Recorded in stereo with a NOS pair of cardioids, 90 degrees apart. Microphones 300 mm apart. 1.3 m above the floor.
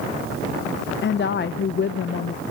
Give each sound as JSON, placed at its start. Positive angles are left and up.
{"t": 1.0, "sound": "a woman speaking", "azimuth_deg": 40, "distance_m": 0.7}